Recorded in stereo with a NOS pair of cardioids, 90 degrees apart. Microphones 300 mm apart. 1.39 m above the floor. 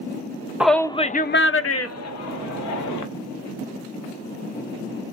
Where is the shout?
5° right, 0.6 m; by 3.0 s 75° left, 1.4 m.